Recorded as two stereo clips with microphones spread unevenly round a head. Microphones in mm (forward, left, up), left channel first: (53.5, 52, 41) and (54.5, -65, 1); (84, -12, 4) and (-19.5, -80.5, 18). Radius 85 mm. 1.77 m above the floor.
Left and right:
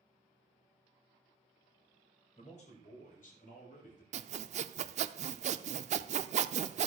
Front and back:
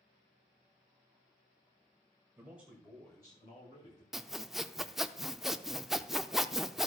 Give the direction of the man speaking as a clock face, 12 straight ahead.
7 o'clock.